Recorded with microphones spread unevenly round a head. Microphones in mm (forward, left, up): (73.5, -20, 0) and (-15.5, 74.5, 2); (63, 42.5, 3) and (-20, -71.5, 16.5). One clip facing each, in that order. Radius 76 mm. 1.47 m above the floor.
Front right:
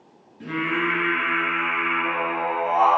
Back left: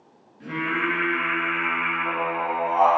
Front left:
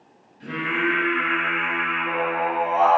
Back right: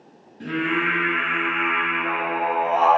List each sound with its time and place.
0.4 s singing: 105° right, 4 m